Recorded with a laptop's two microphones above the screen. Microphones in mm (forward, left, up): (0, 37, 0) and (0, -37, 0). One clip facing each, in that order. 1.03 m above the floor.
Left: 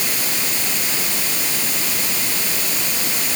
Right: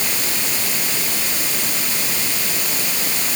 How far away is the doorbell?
No doorbell in this recording.